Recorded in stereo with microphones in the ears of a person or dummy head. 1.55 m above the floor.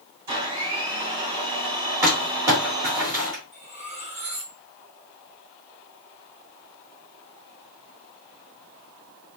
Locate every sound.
0.3 s a blender: 20° right (ahead or behind), 3 m
2.0 s crumpling: 10° right (ahead or behind), 2.5 m
3.5 s cutlery clinking: 20° right (ahead or behind), 2 m